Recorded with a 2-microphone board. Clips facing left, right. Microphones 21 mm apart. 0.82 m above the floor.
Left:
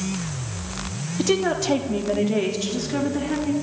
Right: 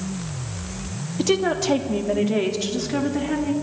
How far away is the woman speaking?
About 1.4 m.